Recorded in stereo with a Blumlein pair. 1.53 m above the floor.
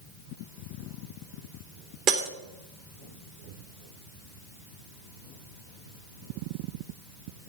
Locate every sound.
2.1 s breaking glass: 40° right, 2 m